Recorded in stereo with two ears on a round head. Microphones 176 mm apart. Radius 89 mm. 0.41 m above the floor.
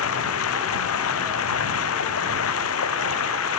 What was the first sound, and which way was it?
Running water, 85° left.